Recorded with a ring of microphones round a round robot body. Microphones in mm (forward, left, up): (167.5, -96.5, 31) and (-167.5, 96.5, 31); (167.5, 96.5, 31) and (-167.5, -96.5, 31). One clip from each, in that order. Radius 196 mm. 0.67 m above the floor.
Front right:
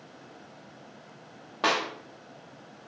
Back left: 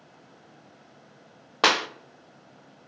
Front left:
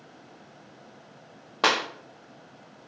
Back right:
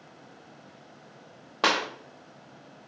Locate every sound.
1.6 s a clap: 115° left, 0.5 m